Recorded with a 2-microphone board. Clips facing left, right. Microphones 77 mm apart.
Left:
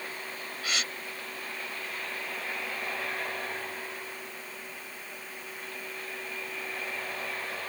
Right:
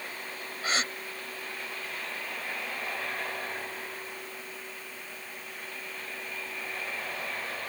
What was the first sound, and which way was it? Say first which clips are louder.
A gasp: right 4 dB; 35° right (ahead or behind).